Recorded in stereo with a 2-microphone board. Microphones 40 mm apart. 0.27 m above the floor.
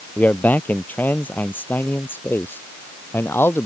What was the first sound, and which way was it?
A man speaking, 45° left (ahead or behind).